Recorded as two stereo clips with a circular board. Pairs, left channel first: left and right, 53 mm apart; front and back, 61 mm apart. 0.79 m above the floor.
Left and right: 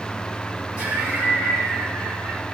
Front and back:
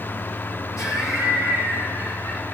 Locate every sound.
0.8 s laughter: 30° right, 3.5 m